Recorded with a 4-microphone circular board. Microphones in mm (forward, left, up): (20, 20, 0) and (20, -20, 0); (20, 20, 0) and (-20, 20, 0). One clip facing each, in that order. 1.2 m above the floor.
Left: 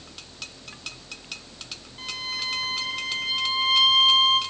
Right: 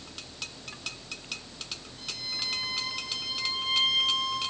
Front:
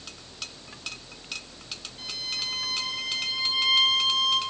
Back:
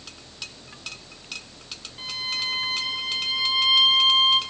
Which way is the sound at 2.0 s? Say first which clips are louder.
Left 6 dB, back 5 dB; 125° left.